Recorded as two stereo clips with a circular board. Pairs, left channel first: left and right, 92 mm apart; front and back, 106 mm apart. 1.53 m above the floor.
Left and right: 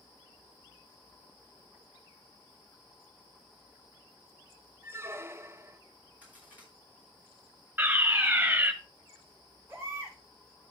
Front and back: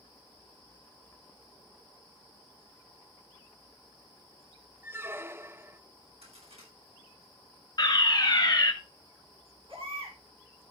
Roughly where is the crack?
Behind.